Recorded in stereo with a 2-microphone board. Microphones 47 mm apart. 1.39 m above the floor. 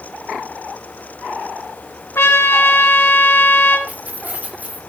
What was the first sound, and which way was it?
A trumpet, 60° left (ahead or behind).